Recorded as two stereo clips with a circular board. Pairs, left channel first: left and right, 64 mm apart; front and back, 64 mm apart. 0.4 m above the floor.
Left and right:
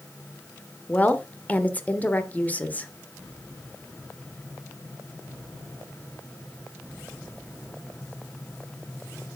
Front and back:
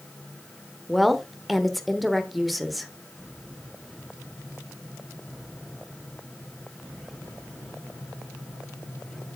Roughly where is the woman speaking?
Left.